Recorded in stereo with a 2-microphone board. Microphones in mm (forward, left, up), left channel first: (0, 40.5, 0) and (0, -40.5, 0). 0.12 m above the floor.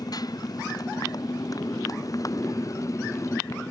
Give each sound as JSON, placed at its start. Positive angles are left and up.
{"t": 0.0, "sound": "a motorcycle", "side_deg": 50}